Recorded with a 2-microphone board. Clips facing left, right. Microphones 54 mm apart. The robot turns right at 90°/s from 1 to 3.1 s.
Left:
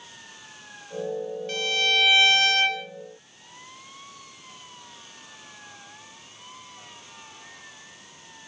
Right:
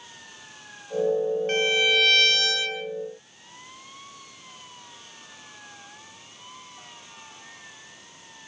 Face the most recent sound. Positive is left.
turn(degrees=100)